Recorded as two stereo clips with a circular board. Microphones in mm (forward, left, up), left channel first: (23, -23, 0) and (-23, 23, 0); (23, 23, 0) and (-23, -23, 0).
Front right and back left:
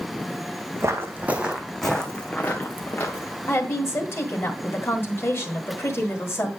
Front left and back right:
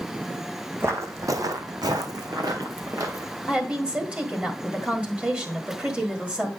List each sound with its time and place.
0.8 s footsteps: 175° left, 1.0 m; by 3.3 s 95° right, 2 m
3.5 s a woman speaking: 70° right, 1.7 m